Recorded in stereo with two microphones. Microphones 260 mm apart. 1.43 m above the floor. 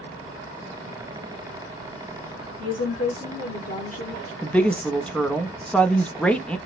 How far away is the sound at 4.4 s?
About 0.6 m.